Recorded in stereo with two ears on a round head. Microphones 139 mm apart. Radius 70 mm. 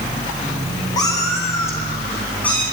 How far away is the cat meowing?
About 4 m.